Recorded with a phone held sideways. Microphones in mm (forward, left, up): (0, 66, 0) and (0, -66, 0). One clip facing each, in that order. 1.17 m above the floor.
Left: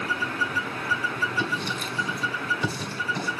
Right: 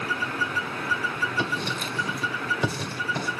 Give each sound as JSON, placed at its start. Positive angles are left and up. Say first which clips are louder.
{"t": 1.4, "sound": "writing", "louder": "even", "side_deg": -75, "distance_m": 2.0}